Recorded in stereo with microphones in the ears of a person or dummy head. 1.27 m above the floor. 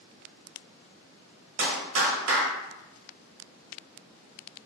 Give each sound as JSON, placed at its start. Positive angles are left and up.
{"t": 1.6, "sound": "a clap", "side_deg": -85, "distance_m": 0.9}